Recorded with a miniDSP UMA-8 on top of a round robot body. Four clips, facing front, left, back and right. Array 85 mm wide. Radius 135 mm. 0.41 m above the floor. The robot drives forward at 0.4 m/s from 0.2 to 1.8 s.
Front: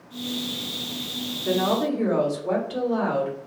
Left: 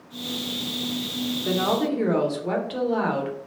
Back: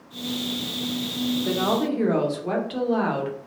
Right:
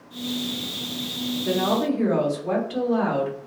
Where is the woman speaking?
135° left, 0.9 m; by 3.4 s 145° left, 1.0 m.